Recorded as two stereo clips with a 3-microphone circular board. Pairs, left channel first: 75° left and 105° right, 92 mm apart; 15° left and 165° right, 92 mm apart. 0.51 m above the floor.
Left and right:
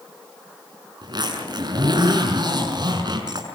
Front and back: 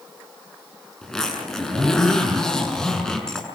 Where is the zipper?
70° right, 6.5 m.